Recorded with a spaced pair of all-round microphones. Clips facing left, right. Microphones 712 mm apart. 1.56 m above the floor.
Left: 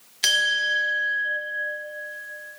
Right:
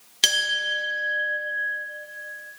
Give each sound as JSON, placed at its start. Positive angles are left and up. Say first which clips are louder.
{"t": 0.2, "sound": "a clink", "louder": "even", "side_deg": -60, "distance_m": 1.2}